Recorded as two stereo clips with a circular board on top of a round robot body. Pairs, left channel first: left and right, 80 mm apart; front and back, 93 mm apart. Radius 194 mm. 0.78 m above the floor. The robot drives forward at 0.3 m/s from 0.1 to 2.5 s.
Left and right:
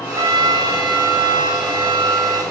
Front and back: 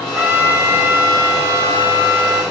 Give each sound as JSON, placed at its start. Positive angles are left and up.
{"t": 0.1, "sound": "a trumpet", "azimuth_deg": -110, "distance_m": 1.7}